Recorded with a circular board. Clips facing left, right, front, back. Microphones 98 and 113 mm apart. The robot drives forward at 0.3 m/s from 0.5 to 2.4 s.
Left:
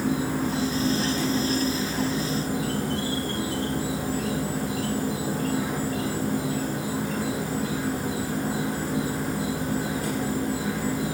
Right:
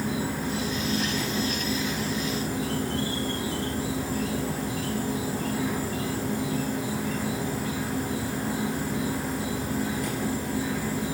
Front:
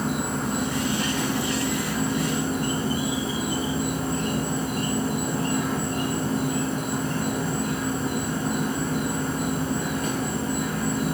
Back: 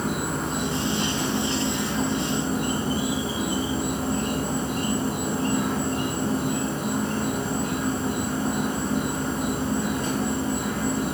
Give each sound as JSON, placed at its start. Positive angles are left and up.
{"t": 0.0, "sound": "an insect", "azimuth_deg": 90, "distance_m": 1.1}